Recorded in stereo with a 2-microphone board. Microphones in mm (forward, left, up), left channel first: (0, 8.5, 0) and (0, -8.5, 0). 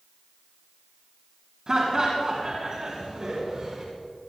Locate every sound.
1.7 s laughter: 45° right (ahead or behind), 2.5 m